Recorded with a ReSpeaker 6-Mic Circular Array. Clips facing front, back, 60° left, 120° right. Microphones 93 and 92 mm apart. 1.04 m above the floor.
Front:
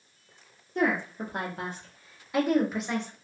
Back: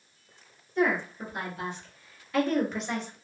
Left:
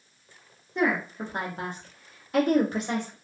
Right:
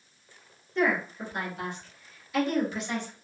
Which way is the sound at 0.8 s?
5° right.